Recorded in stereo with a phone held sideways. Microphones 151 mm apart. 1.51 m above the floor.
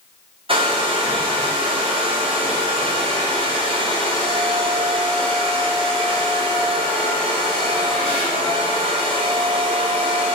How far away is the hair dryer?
About 0.8 m.